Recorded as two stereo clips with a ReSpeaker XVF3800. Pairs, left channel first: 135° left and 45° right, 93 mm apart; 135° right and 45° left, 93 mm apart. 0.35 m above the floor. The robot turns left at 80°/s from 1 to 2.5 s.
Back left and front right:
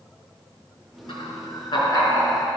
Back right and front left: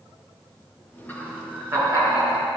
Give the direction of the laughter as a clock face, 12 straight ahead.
7 o'clock.